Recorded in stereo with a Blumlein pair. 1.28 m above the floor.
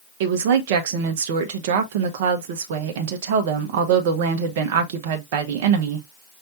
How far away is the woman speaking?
About 0.9 m.